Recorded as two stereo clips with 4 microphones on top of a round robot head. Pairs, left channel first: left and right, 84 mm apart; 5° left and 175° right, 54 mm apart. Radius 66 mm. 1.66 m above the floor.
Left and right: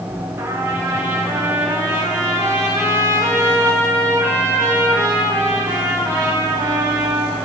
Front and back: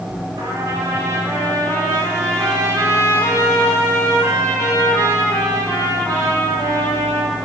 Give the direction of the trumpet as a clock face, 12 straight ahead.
5 o'clock.